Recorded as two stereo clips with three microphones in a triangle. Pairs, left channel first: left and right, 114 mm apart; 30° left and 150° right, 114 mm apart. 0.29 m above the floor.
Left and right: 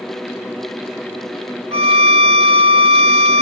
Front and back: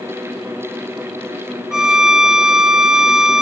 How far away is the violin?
About 0.6 m.